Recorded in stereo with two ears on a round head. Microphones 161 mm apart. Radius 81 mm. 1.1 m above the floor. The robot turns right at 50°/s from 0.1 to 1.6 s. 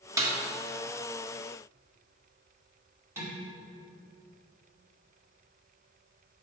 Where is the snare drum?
20° right (ahead or behind), 1.4 m; by 0.3 s 25° right (ahead or behind), 1.4 m.